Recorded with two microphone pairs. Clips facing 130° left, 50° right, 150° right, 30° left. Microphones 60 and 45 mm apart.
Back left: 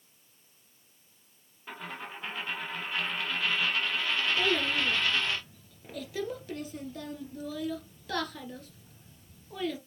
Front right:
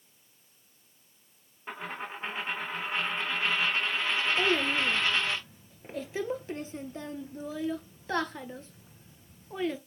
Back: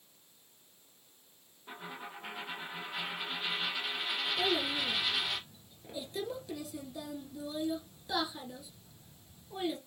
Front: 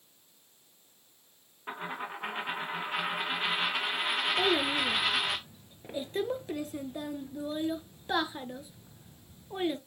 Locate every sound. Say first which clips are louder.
1.7 s a dropped coin: front right 3 dB, front 7 dB; 15° left, 1.9 m
4.4 s a child speaking: front right 2 dB, front 4 dB; 5° left, 1.3 m